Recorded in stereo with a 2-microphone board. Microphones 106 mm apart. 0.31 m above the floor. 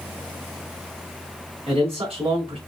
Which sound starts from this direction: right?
A man speaking, at 1.7 s.